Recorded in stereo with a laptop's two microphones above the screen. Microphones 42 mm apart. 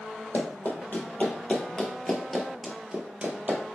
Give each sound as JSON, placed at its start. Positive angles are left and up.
{"t": 0.3, "sound": "running footsteps", "side_deg": 50, "distance_m": 1.6}